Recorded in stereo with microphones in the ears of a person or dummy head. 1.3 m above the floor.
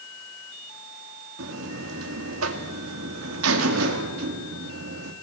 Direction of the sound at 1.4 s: 80° right.